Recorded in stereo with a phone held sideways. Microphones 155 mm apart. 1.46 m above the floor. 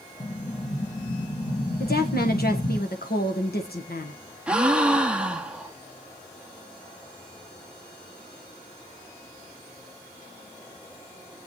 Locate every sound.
0.2 s an explosion: 25° left (ahead or behind), 1.1 m
1.8 s a woman speaking: 85° left, 1.3 m
4.5 s a gasp: 5° right (ahead or behind), 0.9 m